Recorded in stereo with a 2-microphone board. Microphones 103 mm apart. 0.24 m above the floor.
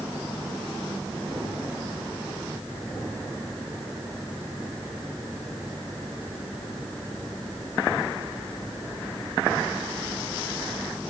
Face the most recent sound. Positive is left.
No sound to turn to.